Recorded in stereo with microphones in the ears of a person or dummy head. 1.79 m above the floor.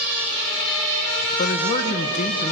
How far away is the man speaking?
About 1.3 m.